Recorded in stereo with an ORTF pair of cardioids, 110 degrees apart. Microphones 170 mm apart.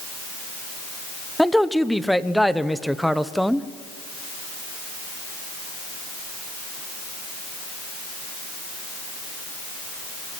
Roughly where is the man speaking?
Ahead.